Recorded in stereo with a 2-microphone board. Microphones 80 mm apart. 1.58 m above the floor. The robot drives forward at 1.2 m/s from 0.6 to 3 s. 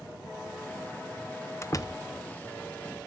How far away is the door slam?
About 1.1 m.